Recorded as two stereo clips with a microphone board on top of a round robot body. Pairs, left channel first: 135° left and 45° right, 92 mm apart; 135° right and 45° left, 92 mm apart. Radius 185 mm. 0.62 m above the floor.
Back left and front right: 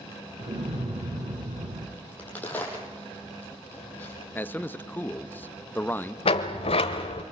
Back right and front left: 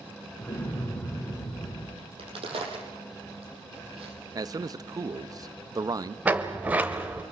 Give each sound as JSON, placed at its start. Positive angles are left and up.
{"t": 0.4, "sound": "an explosion", "azimuth_deg": -65, "distance_m": 3.5}
{"t": 2.0, "sound": "a crack", "azimuth_deg": 65, "distance_m": 5.0}
{"t": 4.3, "sound": "a man speaking", "azimuth_deg": 75, "distance_m": 0.9}
{"t": 6.2, "sound": "a sliding door", "azimuth_deg": 120, "distance_m": 0.6}